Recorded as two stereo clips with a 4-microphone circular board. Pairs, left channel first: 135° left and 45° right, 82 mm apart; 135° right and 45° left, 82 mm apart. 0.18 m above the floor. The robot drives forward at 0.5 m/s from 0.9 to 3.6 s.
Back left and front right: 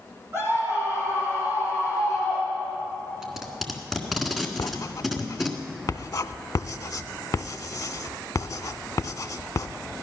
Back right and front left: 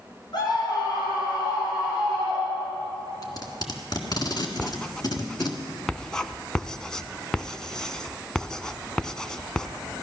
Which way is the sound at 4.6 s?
145° left.